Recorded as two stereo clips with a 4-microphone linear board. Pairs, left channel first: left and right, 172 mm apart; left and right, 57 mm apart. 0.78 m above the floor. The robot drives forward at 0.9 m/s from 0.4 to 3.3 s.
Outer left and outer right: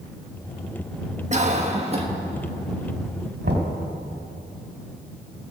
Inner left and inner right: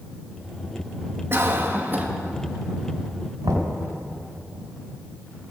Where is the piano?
No piano in this recording.